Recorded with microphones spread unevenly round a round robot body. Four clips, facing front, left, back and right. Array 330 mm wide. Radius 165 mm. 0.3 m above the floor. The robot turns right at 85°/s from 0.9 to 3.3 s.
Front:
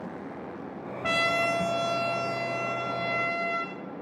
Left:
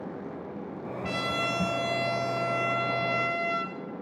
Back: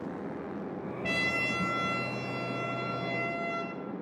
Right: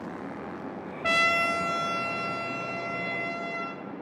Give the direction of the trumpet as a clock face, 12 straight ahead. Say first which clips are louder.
Right 5 dB, front 8 dB; 2 o'clock.